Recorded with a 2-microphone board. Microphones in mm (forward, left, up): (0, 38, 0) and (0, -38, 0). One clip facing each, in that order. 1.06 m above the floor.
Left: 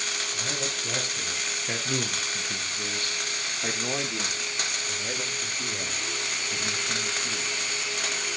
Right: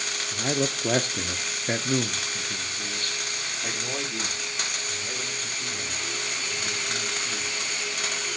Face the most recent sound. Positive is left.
turn(degrees=40)  # may be behind; listen again after turning